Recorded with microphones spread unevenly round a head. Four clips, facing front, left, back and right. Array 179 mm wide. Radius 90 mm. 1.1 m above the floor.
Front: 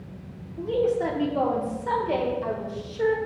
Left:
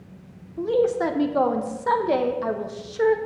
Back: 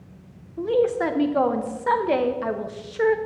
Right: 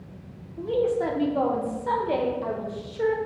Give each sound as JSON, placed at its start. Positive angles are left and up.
{"t": 0.6, "sound": "a woman speaking", "azimuth_deg": 135, "distance_m": 0.5}